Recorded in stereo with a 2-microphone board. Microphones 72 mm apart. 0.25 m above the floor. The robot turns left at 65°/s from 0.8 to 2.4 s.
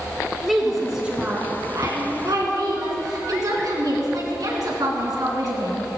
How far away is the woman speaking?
About 3 m.